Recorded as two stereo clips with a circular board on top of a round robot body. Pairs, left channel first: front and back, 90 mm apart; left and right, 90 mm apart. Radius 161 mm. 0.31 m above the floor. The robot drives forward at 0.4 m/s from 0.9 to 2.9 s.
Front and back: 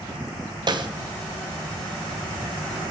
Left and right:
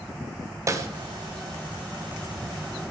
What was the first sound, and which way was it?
A snare drum, 145° right.